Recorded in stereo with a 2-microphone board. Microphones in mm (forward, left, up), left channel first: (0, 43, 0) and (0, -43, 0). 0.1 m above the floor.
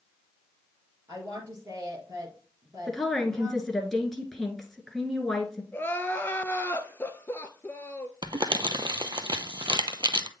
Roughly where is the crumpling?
Right.